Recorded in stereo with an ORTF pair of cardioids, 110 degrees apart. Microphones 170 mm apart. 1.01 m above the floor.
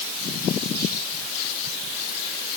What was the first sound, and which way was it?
Only background noise.